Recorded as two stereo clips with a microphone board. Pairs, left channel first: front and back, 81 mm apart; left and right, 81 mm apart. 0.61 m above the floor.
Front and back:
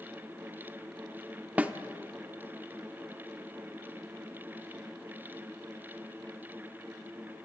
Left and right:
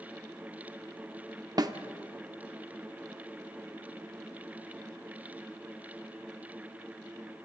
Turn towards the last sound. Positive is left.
turn(degrees=-110)